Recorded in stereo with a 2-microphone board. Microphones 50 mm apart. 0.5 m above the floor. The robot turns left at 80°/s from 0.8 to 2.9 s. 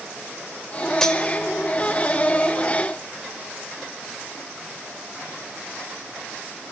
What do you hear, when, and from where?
1.0 s cutlery clinking: 10° left (ahead or behind), 1.1 m; by 1.2 s 25° left (ahead or behind), 1.1 m